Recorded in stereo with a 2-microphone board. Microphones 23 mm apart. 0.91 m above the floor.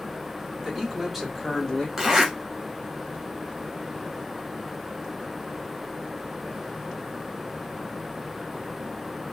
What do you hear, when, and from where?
0.6 s a man speaking: 15° right (ahead or behind), 1.6 m; by 1.9 s 30° left (ahead or behind), 1.1 m
2.0 s a zipper: 15° right (ahead or behind), 1.2 m